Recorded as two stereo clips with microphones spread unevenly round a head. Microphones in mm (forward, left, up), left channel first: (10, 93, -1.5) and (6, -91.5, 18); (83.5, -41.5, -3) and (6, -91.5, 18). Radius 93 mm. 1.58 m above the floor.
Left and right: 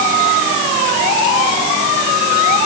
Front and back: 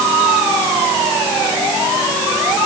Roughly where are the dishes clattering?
I don't hear dishes clattering.